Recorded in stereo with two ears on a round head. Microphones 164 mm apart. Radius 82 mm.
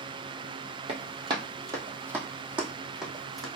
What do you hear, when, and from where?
0.9 s running footsteps: 30° right (ahead or behind), 1.1 m; by 3.5 s centre (ahead or behind), 1.9 m